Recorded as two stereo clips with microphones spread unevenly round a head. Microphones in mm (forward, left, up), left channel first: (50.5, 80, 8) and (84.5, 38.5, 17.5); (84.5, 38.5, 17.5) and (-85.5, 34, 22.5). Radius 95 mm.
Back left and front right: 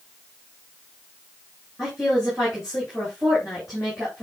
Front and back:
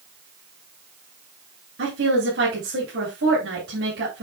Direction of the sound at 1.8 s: 140° right.